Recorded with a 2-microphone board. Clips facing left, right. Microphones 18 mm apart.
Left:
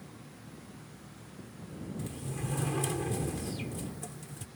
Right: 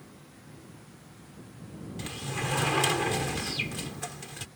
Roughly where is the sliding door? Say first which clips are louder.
Right 8 dB; right.